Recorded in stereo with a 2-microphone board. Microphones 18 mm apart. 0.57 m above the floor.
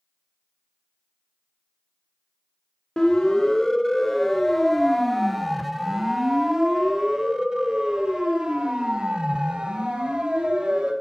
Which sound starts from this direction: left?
A siren, at 3.0 s.